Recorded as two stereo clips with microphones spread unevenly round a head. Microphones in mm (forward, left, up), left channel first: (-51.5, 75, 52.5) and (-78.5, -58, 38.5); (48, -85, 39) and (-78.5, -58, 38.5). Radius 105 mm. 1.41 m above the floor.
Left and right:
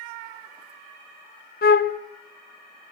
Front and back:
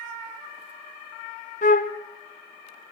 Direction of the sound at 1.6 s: 40° left.